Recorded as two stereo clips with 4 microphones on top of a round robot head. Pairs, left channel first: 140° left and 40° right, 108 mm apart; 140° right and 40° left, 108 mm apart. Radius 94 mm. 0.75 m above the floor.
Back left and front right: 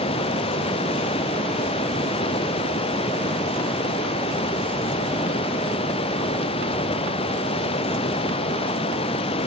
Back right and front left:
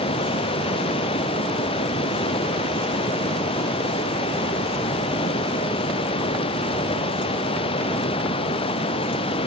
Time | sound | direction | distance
0.0 | running water | straight behind | ?